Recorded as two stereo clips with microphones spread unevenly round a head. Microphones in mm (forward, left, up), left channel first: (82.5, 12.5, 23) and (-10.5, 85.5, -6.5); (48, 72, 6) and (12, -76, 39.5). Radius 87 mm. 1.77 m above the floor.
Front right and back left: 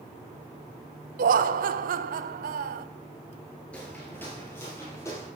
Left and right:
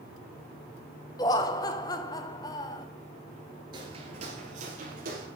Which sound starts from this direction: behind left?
Laughter, at 1.2 s.